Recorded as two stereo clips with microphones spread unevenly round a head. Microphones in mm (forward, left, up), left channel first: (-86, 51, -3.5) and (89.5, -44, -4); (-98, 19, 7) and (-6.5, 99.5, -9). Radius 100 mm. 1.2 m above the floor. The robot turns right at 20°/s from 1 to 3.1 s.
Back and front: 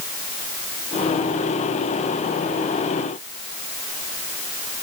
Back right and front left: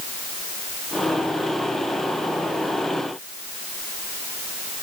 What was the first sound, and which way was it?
Only background noise.